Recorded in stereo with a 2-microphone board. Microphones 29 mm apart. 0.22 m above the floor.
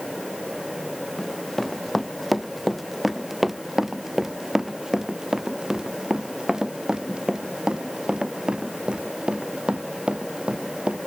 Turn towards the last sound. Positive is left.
turn(degrees=-35)  # may be behind; listen again after turning